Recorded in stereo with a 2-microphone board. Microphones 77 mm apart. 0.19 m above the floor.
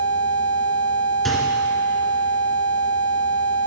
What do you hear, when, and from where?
1.2 s a microwave: 5° left (ahead or behind), 1.7 m